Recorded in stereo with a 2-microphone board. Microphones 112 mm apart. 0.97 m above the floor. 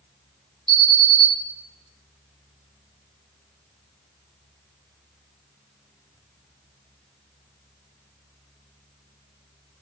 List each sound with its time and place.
0.7 s an alarm: 45° left (ahead or behind), 0.9 m